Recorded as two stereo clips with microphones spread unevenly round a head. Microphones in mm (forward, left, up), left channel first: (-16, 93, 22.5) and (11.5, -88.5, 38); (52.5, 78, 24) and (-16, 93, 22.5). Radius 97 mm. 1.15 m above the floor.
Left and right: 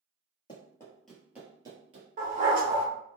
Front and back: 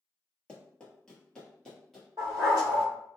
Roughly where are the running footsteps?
Ahead left.